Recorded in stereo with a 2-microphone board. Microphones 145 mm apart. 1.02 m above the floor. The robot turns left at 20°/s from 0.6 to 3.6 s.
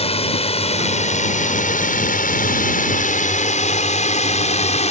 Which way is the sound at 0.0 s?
45° left (ahead or behind).